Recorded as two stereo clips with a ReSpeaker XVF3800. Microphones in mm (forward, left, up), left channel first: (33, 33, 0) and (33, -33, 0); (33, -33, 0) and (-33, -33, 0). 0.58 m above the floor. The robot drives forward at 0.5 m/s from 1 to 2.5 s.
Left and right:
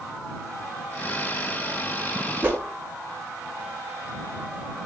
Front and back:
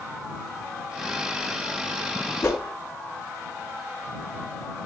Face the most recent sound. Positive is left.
turn(degrees=-35)